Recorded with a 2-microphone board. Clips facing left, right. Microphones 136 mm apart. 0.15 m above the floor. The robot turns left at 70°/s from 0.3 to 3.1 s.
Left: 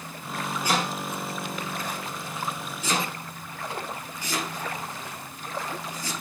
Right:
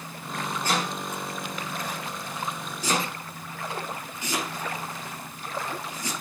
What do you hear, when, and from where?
0.6 s chopping: 15° left (ahead or behind), 3.5 m; by 6.1 s 20° right (ahead or behind), 3.5 m